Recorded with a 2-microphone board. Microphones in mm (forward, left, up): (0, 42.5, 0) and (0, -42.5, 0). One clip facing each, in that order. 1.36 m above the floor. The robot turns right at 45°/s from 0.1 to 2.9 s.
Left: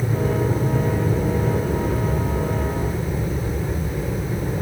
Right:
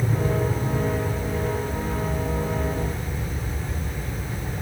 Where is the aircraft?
10° left (ahead or behind); by 4.6 s 40° left (ahead or behind).